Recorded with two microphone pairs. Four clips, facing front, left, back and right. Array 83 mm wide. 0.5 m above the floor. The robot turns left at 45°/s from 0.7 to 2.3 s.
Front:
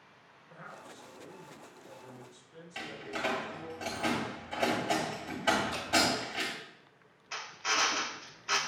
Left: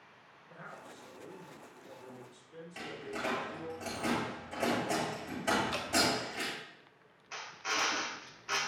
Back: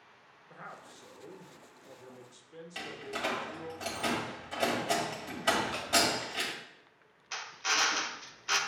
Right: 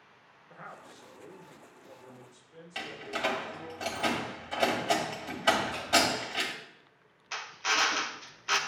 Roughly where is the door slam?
Right.